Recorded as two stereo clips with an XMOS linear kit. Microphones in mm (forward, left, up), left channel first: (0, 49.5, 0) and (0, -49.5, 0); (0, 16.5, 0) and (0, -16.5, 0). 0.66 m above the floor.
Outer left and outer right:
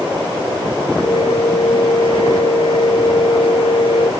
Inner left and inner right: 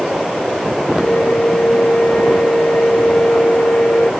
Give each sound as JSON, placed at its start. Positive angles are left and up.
{"t": 1.0, "sound": "a flute", "side_deg": 70}